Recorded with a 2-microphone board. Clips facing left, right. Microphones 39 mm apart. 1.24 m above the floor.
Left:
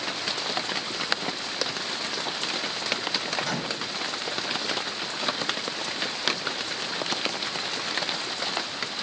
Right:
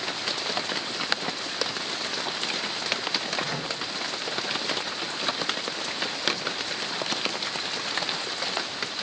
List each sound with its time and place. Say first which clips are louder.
3.4 s a microwave: left 1 dB; 75° left (ahead or behind), 1.5 m